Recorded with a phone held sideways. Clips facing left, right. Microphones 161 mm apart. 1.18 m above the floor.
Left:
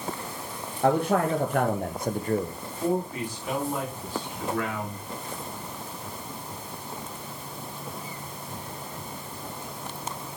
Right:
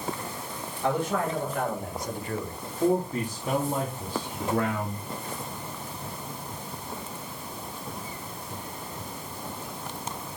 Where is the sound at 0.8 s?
60° left (ahead or behind), 1.4 m; by 2.5 s 30° left (ahead or behind), 0.8 m.